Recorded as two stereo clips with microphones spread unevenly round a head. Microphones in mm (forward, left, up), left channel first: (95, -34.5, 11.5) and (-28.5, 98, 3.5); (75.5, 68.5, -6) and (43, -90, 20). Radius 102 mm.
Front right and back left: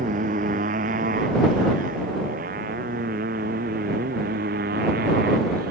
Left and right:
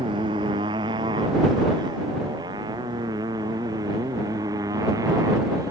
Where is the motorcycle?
170° right; by 5.7 s 175° right.